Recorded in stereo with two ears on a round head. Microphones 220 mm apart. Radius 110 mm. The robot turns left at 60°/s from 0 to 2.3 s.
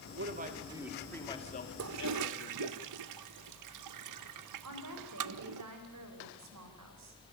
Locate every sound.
0.1 s a man speaking: 130° right, 2.5 m; by 2.8 s 100° left, 2.5 m
1.8 s a toilet flushing: 55° right (ahead or behind), 0.6 m; by 5.6 s 85° right, 0.6 m
4.6 s a woman speaking: 75° right (ahead or behind), 4 m